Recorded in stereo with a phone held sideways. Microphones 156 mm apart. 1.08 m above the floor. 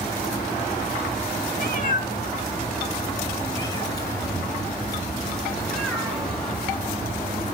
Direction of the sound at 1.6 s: 60° left (ahead or behind).